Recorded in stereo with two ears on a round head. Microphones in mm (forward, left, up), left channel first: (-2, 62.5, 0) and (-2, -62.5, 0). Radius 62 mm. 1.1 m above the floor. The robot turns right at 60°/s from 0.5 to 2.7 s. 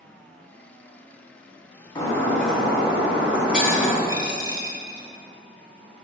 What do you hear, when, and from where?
1.9 s breaking glass: 145° left, 1.6 m; by 4.0 s 170° right, 1.6 m
4.1 s a dropped coin: 30° right (ahead or behind), 1.0 m